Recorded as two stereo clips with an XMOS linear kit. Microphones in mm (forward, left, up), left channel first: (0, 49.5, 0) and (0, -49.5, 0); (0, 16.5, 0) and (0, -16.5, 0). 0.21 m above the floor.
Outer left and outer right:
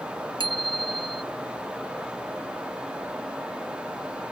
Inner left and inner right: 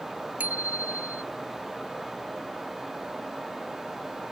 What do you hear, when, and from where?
0.4 s a bicycle bell: 65° right (ahead or behind)